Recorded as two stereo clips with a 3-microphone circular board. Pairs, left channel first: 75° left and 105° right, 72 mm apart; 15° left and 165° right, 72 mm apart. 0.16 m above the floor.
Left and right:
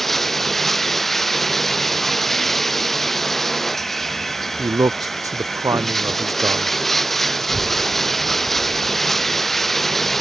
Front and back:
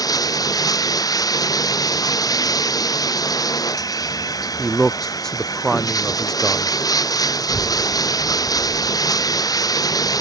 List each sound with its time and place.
0.0 s running water: 15° right
4.6 s a man speaking: 70° right
7.4 s a child speaking: 170° left